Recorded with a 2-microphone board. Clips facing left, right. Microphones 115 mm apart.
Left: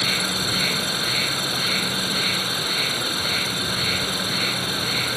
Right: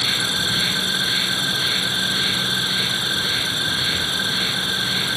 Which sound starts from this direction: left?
An insect, at 0.0 s.